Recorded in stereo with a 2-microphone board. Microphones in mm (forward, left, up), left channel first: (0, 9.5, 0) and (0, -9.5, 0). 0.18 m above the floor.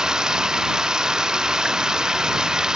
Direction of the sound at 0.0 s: 35° right (ahead or behind).